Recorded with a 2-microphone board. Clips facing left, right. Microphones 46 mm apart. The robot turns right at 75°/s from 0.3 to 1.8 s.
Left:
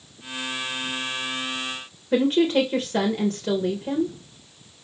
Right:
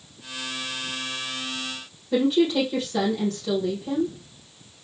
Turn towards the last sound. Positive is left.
turn(degrees=40)  # may be behind; listen again after turning